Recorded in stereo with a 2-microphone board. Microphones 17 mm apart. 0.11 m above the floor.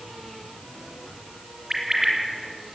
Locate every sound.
1.7 s a bird: 40° right (ahead or behind), 3.5 m